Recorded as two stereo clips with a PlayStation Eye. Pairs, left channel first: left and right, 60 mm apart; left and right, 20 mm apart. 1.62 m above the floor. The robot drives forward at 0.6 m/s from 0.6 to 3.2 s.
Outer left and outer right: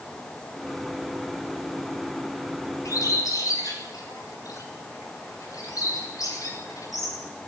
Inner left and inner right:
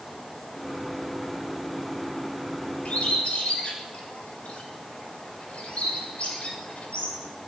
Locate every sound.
2.9 s a bird: 85° left, 6.5 m